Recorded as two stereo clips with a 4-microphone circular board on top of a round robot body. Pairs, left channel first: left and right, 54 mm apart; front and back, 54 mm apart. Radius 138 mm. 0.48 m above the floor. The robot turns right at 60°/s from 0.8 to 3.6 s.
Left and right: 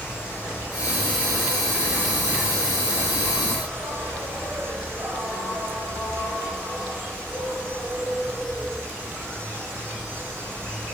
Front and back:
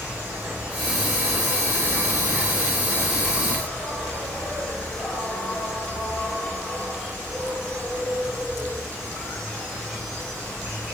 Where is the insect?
110° left, 2.0 m; by 10.9 s 80° right, 2.0 m.